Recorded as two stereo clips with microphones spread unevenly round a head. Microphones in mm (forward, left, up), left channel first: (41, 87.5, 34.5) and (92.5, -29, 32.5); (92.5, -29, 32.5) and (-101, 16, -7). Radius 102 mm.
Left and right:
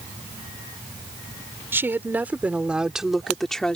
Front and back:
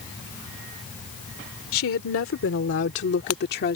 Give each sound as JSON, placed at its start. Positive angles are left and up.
{"t": 1.7, "sound": "a woman speaking", "azimuth_deg": 5}